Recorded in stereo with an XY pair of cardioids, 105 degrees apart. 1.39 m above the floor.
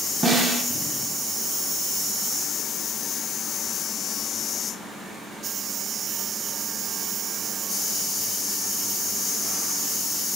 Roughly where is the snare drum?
Ahead right.